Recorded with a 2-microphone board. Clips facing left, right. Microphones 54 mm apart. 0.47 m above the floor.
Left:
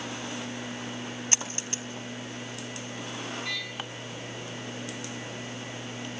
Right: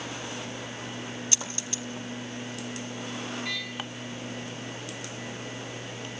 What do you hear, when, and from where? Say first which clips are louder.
1.3 s a dropped coin: left 1 dB; 40° left (ahead or behind), 4 m